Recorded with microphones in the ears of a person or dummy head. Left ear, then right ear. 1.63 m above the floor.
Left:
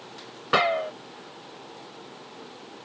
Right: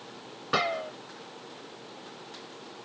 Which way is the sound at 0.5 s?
25° left (ahead or behind).